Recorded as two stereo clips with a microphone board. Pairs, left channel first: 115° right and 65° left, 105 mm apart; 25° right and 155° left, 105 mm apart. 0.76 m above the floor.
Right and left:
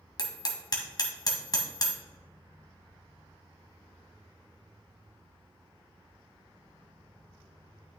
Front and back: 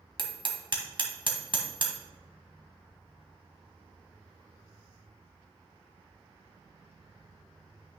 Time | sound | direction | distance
0.2 | hammering | 160° right | 1.5 m